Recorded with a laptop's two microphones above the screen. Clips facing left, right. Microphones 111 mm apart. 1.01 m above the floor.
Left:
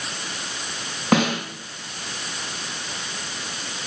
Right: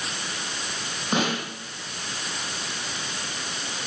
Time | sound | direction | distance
1.1 | a snare drum | 75° left (ahead or behind) | 6 m